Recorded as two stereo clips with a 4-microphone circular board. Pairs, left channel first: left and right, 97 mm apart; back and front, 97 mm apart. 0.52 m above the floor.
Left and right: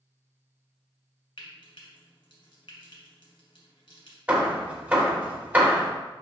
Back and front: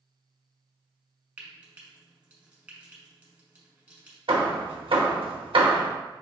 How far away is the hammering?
About 0.8 m.